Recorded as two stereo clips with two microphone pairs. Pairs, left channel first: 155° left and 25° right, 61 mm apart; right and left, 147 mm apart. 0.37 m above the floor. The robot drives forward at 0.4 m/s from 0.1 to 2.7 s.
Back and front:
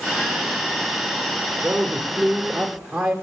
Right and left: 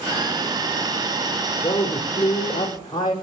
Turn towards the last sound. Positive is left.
turn(degrees=-115)